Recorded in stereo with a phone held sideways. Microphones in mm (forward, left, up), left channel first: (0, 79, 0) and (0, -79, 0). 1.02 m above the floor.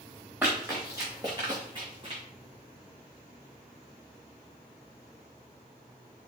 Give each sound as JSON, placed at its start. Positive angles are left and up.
{"t": 0.4, "sound": "running footsteps", "side_deg": -15, "distance_m": 3.5}